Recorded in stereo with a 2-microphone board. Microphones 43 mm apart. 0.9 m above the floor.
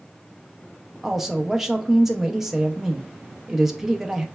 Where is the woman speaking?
5° right (ahead or behind), 0.6 m.